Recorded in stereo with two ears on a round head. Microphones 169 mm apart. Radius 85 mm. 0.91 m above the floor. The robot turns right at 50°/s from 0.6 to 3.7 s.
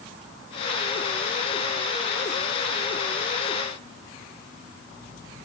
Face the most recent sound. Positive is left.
No sound to turn to.